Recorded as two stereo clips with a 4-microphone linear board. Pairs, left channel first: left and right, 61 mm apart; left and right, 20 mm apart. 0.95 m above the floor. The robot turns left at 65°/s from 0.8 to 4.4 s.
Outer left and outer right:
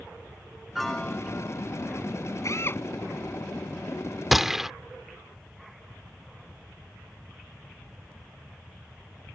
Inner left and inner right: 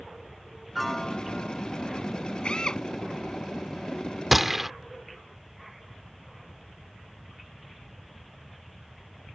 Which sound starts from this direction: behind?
A piano, at 0.8 s.